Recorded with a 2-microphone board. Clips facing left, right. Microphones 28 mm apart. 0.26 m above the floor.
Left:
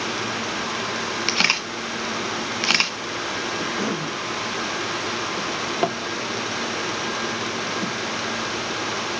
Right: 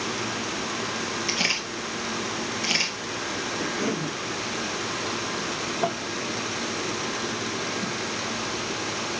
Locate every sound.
1.3 s a camera shutter: 65° left (ahead or behind), 1.2 m
3.6 s a cough: 40° left (ahead or behind), 3 m
5.4 s a drawer: 60° left (ahead or behind), 2.5 m